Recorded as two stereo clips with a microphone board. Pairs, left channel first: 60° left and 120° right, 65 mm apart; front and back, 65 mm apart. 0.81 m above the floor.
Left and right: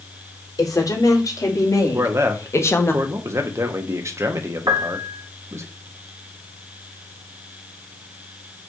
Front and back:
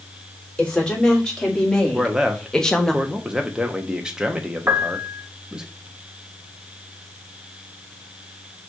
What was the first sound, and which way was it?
A woman speaking, 75° left.